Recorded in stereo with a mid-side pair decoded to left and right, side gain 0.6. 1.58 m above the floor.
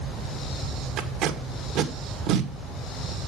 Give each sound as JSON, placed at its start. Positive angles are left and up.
{"t": 1.0, "sound": "tape being pulled", "azimuth_deg": -65, "distance_m": 1.8}